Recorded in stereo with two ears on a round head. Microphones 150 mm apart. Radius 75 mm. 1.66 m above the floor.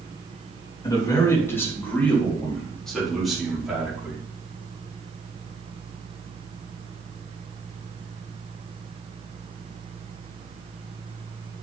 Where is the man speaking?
25° left (ahead or behind), 3 m; by 4.2 s 5° right (ahead or behind), 4.5 m.